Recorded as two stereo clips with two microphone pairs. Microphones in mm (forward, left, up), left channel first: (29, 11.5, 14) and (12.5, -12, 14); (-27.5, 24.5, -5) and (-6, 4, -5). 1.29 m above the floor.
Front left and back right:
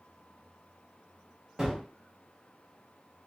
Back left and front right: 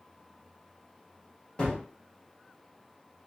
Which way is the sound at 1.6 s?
175° left.